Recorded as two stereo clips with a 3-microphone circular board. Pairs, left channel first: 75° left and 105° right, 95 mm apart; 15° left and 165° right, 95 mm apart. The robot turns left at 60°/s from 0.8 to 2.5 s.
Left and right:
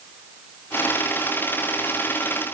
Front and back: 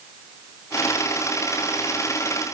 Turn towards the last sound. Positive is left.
No sound to turn to.